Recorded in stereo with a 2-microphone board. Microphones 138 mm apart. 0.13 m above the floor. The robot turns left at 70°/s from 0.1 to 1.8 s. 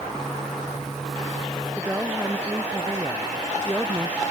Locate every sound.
1.7 s a woman speaking: 15° right (ahead or behind)